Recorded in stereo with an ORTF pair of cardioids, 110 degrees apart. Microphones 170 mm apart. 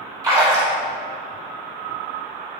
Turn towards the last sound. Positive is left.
turn(degrees=-20)